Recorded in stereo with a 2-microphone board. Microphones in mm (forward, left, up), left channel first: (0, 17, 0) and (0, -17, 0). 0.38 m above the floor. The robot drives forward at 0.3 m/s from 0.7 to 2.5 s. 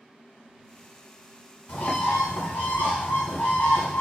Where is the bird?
65° left (ahead or behind), 1.0 m; by 4.0 s 80° left, 0.9 m.